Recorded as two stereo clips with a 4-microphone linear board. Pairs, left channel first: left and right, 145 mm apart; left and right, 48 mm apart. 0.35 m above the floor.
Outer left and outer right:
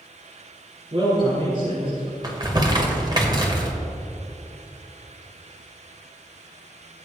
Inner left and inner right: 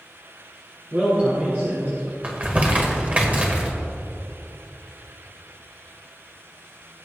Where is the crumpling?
30° right (ahead or behind), 1.6 m.